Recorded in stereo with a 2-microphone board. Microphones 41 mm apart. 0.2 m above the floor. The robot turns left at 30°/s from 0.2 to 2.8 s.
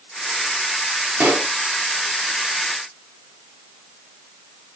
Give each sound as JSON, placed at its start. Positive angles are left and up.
{"t": 1.2, "sound": "a pop", "side_deg": -50, "distance_m": 2.0}